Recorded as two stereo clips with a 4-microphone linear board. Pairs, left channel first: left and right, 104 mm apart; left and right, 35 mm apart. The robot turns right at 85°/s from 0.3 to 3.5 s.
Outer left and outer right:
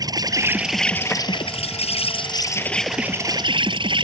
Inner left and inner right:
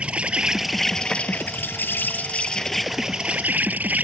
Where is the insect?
40° right; by 4.0 s 125° right.